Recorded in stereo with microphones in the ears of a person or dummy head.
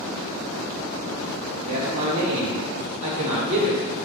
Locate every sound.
1.6 s a man speaking: 35° right (ahead or behind), 0.8 m